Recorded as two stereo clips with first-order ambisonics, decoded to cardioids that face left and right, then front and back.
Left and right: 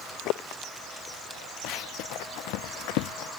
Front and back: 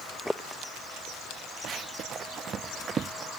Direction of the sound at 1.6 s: 125° left.